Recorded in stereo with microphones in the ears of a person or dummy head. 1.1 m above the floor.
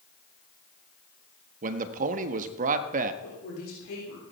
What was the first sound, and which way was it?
A man speaking, 45° right (ahead or behind).